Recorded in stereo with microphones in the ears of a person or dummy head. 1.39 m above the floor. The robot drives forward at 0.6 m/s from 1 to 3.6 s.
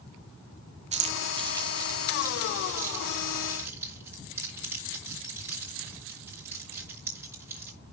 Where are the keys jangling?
30° right (ahead or behind), 0.9 m; by 7.7 s 10° right (ahead or behind), 2.5 m.